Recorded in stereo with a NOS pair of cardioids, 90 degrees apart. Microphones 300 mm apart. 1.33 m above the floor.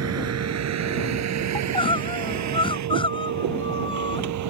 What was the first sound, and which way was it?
A vehicle, 60° right.